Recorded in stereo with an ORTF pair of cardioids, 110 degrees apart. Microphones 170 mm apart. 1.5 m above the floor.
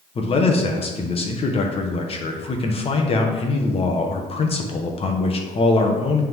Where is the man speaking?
35° left, 1.3 m.